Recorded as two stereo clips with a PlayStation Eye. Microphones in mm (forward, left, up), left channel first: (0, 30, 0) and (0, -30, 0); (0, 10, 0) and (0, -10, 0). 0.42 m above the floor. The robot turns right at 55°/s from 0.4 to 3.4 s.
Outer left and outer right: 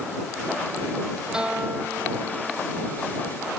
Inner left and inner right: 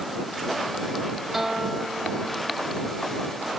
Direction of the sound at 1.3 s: 170° right.